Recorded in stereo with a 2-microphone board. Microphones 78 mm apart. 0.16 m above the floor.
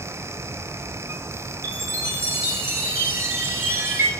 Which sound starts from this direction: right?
A chime, at 1.6 s.